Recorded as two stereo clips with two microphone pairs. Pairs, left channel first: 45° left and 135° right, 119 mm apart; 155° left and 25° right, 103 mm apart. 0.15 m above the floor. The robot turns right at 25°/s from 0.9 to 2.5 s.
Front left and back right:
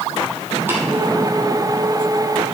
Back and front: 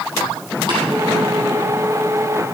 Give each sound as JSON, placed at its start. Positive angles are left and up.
{"t": 0.7, "sound": "tapping", "azimuth_deg": -65, "distance_m": 3.0}